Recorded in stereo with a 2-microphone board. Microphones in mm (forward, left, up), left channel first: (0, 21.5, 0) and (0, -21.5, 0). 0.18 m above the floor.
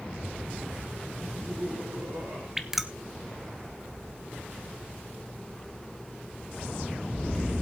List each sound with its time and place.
1.2 s laughter: 60° right (ahead or behind), 2.5 m
2.6 s dripping: 5° right (ahead or behind), 0.8 m